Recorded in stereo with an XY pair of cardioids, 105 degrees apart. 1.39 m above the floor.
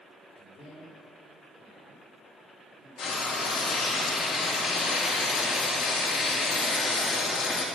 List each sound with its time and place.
0.4 s a man speaking: 55° left, 4 m
3.0 s frying: 50° left, 3 m